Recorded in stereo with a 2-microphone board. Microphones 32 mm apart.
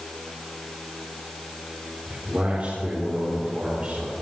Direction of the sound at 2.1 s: 55° right (ahead or behind).